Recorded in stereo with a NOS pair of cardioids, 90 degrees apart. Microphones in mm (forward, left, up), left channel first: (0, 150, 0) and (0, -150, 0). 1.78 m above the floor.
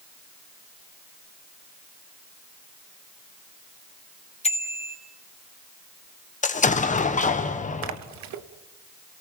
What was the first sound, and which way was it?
A bicycle bell, 20° left.